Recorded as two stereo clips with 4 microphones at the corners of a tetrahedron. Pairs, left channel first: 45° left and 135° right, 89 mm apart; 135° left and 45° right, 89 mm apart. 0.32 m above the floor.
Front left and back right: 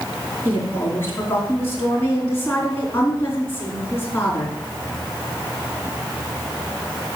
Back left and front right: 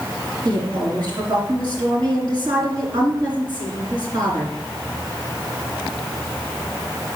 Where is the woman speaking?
15° right, 3 m.